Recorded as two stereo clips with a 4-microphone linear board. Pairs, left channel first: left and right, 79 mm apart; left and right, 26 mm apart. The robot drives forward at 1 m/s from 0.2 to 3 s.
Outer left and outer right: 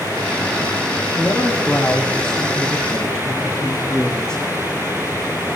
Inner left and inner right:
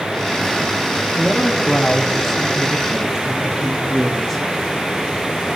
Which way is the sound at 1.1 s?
5° left (ahead or behind).